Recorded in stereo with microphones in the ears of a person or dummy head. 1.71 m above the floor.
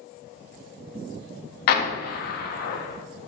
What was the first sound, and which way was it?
An explosion, 60° left (ahead or behind).